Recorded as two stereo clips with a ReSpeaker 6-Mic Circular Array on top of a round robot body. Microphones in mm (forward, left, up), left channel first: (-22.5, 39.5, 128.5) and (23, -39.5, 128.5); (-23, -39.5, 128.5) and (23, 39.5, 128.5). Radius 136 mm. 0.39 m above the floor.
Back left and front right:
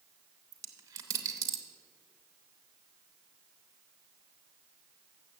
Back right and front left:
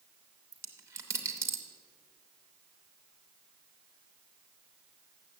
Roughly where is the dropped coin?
Ahead.